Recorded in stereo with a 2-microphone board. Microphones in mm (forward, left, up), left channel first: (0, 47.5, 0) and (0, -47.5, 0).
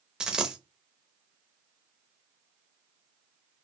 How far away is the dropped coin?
About 0.5 m.